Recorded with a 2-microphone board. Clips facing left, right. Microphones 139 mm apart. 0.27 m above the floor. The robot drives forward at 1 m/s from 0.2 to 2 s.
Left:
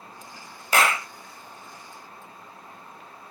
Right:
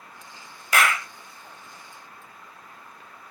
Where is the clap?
30° left (ahead or behind).